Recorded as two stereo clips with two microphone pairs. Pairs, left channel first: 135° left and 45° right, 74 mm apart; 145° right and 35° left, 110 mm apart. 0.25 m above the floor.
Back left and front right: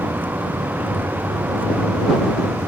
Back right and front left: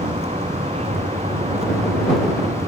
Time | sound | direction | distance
0.0 | a vehicle | 20° left | ?